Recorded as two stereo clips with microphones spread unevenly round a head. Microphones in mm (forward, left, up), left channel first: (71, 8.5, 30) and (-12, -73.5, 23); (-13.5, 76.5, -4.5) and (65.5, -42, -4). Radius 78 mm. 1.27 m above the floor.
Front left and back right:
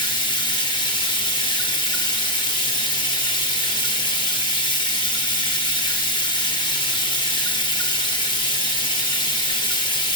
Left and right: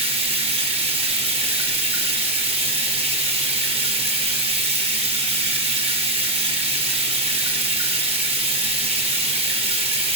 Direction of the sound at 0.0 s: 5° right.